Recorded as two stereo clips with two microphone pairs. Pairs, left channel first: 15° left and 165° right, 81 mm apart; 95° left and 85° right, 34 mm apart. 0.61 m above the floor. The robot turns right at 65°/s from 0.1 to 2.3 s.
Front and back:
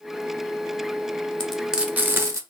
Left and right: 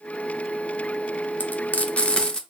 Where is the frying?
95° left, 0.5 m; by 2.4 s 150° left, 0.5 m.